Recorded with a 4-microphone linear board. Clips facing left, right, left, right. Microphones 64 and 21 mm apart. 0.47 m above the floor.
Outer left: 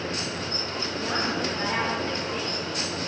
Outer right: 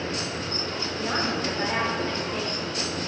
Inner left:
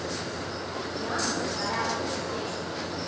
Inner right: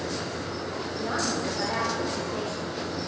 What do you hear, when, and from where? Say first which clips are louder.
1.0 s a woman speaking: outer right 1 dB, inner right 1 dB; 5° right (ahead or behind), 1.2 m